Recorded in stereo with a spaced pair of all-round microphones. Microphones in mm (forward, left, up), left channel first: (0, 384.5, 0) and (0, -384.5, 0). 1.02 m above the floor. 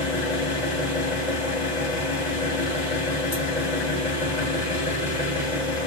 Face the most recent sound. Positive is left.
turn(degrees=75)  # may be behind; listen again after turning